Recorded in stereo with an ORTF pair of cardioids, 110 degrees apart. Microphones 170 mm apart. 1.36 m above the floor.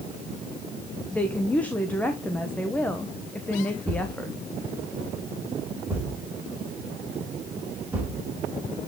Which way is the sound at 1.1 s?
10° left.